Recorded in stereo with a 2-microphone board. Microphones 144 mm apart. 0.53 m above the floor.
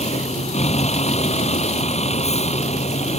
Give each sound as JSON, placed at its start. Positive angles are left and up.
{"t": 0.0, "sound": "a vehicle", "side_deg": 50}